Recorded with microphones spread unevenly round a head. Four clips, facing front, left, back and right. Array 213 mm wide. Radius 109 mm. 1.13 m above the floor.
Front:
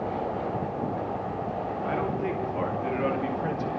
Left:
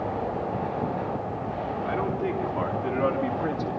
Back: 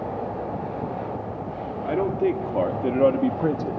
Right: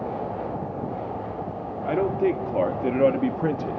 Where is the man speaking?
135° right, 3 m; by 3.8 s 155° right, 1.4 m.